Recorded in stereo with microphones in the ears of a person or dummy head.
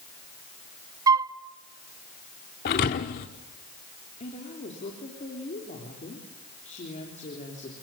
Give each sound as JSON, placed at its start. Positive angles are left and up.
{"t": 1.1, "sound": "a flute", "side_deg": -15, "distance_m": 0.6}
{"t": 2.6, "sound": "a thud", "side_deg": 40, "distance_m": 0.9}
{"t": 4.2, "sound": "a woman speaking", "side_deg": 35, "distance_m": 3.5}